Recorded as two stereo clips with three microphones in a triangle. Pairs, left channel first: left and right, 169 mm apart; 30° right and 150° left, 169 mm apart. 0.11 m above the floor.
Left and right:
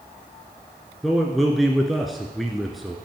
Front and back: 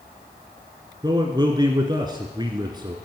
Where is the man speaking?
Straight behind, 1.2 m.